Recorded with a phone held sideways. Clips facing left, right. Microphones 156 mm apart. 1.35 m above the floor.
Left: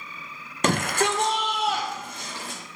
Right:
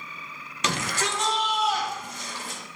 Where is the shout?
50° left (ahead or behind), 0.8 m; by 2.6 s 65° left (ahead or behind), 3 m.